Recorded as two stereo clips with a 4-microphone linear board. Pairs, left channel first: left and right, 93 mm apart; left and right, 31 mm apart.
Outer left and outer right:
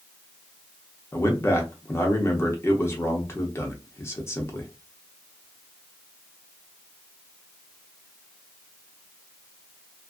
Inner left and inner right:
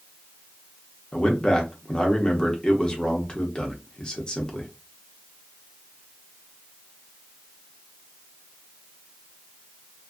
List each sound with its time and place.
1.1 s a man speaking: 25° left (ahead or behind), 0.8 m